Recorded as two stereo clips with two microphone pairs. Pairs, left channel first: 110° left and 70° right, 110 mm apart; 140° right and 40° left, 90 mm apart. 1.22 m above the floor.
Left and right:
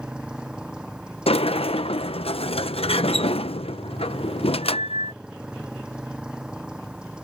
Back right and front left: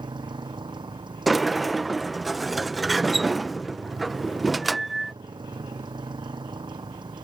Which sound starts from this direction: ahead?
A motorcycle, at 0.0 s.